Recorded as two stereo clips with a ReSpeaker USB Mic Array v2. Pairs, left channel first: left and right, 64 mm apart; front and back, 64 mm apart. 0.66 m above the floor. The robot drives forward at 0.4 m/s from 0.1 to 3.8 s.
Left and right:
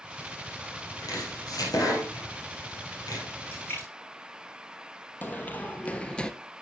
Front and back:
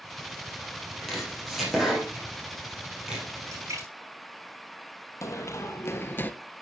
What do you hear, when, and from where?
1.0 s chopping: 85° left, 4 m; by 3.2 s 100° left, 4 m
3.5 s a splash: 140° left, 4.5 m; by 3.9 s 145° left, 4.5 m
5.2 s running footsteps: 30° left, 1.3 m; by 6.3 s 20° left, 0.7 m